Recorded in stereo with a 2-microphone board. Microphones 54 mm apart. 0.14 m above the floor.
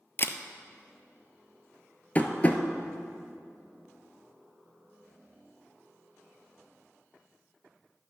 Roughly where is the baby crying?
No baby crying in this recording.